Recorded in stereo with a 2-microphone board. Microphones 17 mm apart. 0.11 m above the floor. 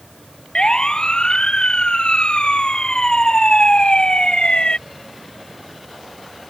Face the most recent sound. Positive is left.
turn(degrees=70)  # may be behind; listen again after turning